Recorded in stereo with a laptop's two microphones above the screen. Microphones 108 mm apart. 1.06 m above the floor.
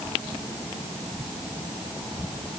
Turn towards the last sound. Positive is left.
No sound to turn to.